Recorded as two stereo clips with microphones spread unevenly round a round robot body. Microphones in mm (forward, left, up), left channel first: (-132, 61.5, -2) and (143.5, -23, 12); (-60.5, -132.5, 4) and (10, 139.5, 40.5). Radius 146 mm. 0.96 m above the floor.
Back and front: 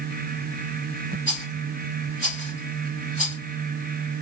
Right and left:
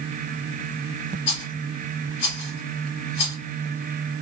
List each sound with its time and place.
1.3 s a rattle: 85° right, 2.5 m